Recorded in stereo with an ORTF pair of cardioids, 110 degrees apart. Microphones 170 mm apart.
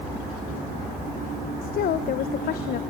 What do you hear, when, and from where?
1.6 s a woman speaking: 65° left, 1.1 m